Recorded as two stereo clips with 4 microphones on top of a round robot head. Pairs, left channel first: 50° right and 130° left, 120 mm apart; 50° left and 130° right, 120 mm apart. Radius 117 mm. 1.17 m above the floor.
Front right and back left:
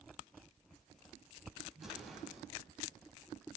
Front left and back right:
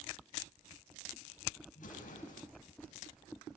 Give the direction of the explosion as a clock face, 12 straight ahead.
11 o'clock.